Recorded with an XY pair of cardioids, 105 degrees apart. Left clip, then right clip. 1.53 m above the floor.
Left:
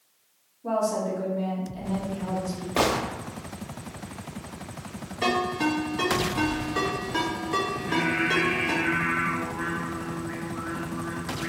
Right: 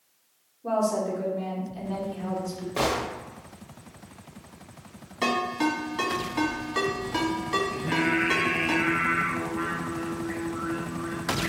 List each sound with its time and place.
0.6 s a woman speaking: 10° right, 1.8 m
2.8 s a gunshot: 35° left, 0.7 m
5.2 s a ringtone: 30° right, 2.0 m
7.7 s singing: 60° right, 0.9 m